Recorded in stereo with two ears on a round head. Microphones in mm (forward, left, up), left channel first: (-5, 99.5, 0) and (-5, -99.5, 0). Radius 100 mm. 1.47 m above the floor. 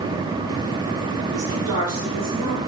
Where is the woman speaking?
75° right (ahead or behind), 2 m.